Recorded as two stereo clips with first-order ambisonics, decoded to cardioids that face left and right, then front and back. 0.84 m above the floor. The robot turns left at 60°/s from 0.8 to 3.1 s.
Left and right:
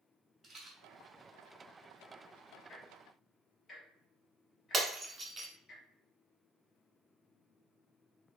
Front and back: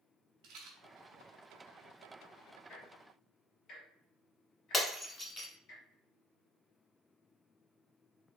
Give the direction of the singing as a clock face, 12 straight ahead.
No singing in this recording.